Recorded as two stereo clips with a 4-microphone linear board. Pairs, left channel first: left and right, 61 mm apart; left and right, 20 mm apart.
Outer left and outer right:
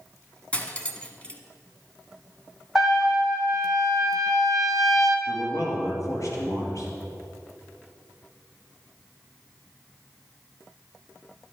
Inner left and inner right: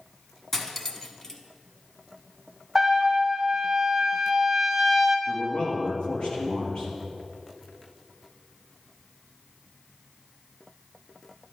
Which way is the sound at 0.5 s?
20° left (ahead or behind).